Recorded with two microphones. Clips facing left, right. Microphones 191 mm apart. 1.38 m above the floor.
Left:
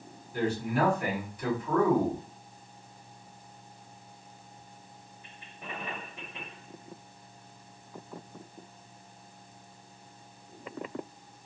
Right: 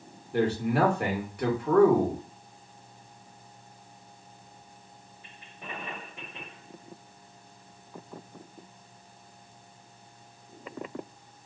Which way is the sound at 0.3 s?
70° right (ahead or behind).